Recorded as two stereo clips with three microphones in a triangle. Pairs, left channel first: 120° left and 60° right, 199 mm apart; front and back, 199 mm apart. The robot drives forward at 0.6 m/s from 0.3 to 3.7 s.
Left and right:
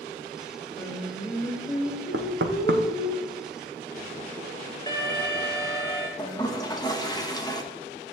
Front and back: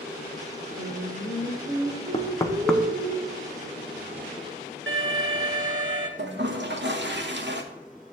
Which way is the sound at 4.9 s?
170° right.